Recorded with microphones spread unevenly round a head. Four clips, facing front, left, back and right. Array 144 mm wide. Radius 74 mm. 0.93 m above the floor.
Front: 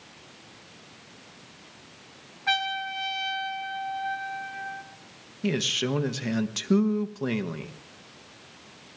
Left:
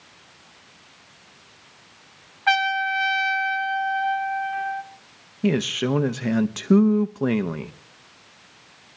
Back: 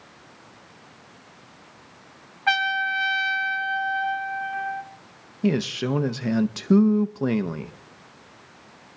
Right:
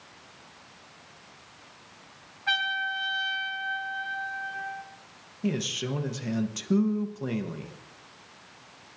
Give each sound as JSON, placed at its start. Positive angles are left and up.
{"t": 2.5, "sound": "a trumpet", "azimuth_deg": 120, "distance_m": 1.2}
{"t": 5.4, "sound": "a man speaking", "azimuth_deg": 105, "distance_m": 0.5}